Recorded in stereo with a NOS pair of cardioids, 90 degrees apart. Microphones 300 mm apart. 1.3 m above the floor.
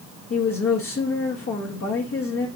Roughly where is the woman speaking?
Ahead left.